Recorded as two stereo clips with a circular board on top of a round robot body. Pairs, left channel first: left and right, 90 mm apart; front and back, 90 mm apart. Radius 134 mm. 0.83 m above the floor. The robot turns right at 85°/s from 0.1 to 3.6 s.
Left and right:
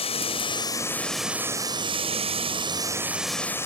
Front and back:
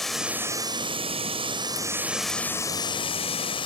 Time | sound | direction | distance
0.0 | running water | 85° left | ?